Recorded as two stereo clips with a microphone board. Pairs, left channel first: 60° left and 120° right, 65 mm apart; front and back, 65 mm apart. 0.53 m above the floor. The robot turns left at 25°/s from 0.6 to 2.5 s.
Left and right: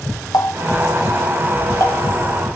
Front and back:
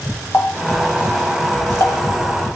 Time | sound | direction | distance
0.3 | a running tap | 55° left | 1.8 m